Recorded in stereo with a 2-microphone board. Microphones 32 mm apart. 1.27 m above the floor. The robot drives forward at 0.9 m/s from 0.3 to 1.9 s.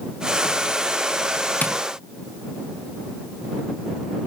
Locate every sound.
1.6 s tapping: 70° left (ahead or behind), 0.8 m; by 1.8 s 65° left (ahead or behind), 0.9 m